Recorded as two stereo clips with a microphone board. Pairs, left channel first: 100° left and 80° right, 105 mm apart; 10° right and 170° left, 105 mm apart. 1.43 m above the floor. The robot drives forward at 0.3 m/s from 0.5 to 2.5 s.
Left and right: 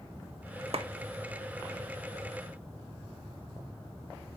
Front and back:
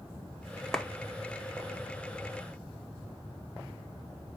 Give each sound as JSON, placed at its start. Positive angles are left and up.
{"t": 0.7, "sound": "a clap", "azimuth_deg": -95, "distance_m": 0.5}